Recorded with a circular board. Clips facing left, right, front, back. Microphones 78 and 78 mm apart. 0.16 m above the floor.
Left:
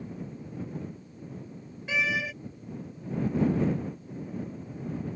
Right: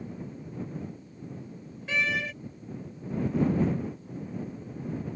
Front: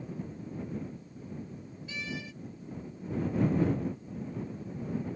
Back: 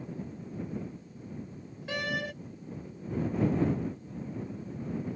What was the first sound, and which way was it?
A door slam, 175° left.